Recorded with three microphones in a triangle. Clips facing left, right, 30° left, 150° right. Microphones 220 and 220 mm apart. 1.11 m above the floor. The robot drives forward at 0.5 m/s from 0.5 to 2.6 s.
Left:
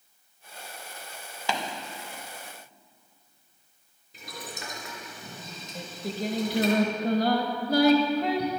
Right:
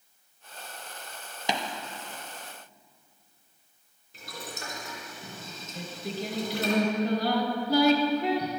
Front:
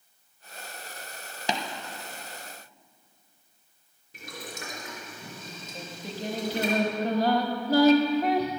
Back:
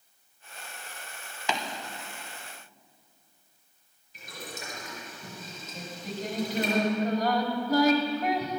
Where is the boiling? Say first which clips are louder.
Even, front 2 dB; 20° left, 3 m.